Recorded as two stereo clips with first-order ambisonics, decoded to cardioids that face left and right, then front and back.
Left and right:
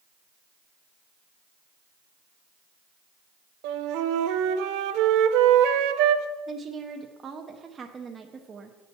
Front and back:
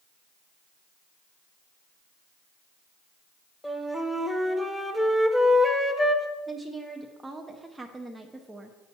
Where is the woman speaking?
110° right, 0.5 m.